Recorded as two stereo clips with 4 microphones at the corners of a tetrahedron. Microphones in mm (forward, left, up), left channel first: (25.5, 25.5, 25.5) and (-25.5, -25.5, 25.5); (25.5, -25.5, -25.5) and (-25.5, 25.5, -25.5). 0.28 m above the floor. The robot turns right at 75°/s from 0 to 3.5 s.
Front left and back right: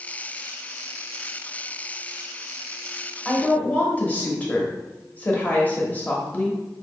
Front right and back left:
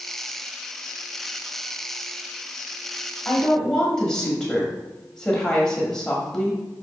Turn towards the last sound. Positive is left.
turn(degrees=20)